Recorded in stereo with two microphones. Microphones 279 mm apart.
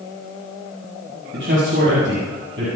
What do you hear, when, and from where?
1.3 s a man speaking: 45° right (ahead or behind), 7.5 m